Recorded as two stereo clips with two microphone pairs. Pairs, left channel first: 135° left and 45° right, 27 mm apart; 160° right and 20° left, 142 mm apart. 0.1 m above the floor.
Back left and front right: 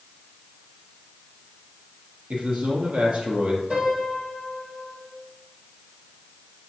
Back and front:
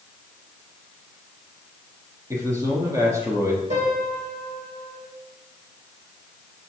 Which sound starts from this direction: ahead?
A piano, at 3.7 s.